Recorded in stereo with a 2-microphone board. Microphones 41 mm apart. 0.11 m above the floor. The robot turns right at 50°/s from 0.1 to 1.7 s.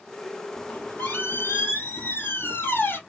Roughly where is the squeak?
Ahead left.